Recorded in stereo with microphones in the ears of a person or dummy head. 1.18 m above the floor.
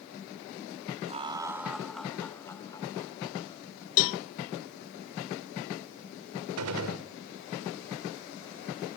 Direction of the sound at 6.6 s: 85° right.